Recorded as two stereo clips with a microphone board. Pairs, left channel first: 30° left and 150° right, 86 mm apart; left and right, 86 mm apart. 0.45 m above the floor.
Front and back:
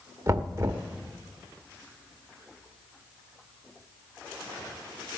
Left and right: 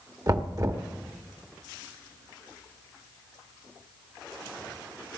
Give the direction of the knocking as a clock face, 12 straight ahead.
4 o'clock.